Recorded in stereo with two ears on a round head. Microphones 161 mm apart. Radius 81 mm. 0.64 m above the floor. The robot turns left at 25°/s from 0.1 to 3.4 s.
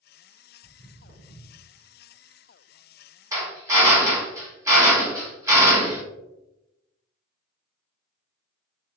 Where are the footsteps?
40° left (ahead or behind), 2 m; by 1.7 s 5° left (ahead or behind), 3 m.